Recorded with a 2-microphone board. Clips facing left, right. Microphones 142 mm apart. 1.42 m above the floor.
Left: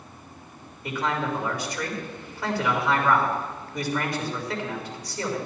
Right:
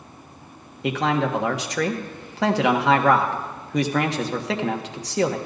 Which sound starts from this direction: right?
A man speaking, at 0.8 s.